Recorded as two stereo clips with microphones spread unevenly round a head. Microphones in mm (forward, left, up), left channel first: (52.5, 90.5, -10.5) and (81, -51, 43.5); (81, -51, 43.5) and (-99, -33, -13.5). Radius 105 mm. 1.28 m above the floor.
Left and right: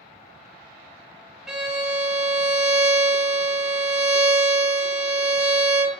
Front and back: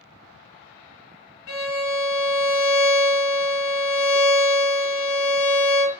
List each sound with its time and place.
1.5 s a violin: 5° left, 0.7 m